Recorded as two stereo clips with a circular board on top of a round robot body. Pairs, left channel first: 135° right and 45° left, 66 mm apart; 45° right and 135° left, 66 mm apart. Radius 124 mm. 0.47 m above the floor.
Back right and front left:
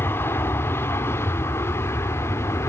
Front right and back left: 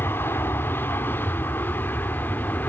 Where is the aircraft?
90° right; by 2.7 s 100° right.